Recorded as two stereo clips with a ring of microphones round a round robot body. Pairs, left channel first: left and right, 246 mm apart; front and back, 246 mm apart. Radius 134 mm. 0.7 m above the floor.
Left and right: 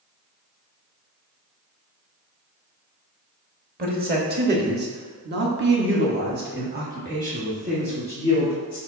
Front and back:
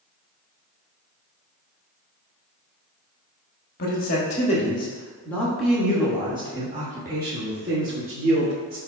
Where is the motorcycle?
No motorcycle in this recording.